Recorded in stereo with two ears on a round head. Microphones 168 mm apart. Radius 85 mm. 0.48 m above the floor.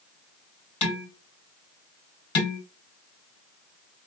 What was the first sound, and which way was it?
Dishes clattering, 35° left (ahead or behind).